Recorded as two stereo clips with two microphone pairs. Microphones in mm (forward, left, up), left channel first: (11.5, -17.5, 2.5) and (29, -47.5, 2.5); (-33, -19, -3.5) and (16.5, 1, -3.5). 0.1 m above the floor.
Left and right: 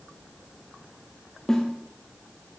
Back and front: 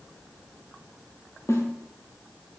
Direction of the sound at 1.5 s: 170° right.